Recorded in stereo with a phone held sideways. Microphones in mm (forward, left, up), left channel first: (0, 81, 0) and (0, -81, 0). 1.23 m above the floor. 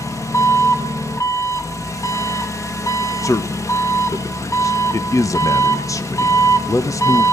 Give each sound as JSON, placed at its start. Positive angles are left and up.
{"t": 0.0, "sound": "an engine running", "side_deg": 20, "distance_m": 1.1}
{"t": 3.2, "sound": "a man speaking", "side_deg": 20, "distance_m": 1.0}